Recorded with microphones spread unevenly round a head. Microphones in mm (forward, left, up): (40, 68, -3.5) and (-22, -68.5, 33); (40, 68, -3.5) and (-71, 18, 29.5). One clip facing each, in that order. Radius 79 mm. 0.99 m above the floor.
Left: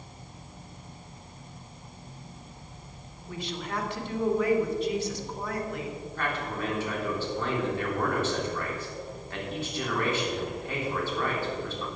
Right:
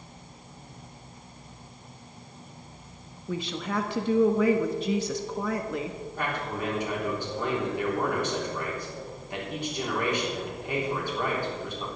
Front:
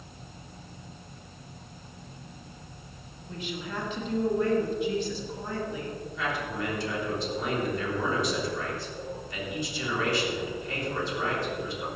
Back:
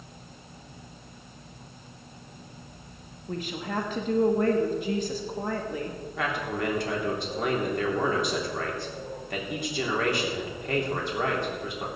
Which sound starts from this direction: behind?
A man speaking, at 6.2 s.